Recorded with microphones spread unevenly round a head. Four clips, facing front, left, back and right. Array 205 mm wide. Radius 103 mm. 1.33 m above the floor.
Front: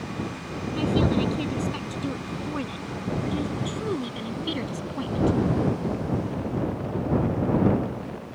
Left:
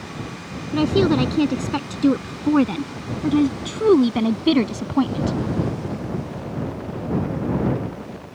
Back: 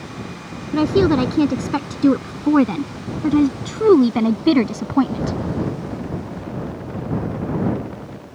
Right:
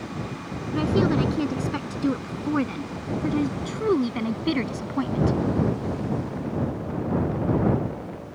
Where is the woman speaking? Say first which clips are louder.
Left 4 dB, back 8 dB; 150° left.